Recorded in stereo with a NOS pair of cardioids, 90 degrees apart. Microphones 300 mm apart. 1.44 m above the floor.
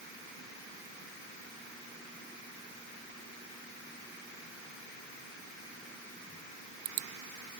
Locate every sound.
Only background noise.